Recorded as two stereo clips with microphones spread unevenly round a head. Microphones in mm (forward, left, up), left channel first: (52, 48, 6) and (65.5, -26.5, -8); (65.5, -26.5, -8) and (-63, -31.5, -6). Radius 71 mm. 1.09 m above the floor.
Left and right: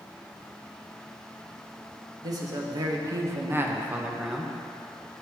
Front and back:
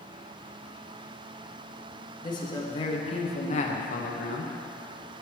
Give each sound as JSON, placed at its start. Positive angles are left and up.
{"t": 2.2, "sound": "a man speaking", "azimuth_deg": -55, "distance_m": 1.4}